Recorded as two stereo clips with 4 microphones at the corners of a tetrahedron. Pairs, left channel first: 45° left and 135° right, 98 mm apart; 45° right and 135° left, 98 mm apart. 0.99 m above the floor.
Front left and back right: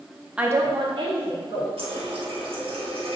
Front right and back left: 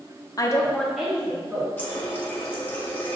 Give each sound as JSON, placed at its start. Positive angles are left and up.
{"t": 0.4, "sound": "a woman speaking", "azimuth_deg": -60, "distance_m": 0.5}
{"t": 1.8, "sound": "a running tap", "azimuth_deg": -120, "distance_m": 0.9}